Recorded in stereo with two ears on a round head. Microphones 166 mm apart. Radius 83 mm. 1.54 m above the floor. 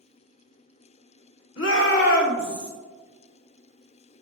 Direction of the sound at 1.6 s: 75° left (ahead or behind).